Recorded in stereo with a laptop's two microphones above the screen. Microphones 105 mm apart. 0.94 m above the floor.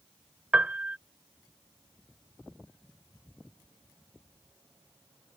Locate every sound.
0.5 s a piano: 10° right (ahead or behind)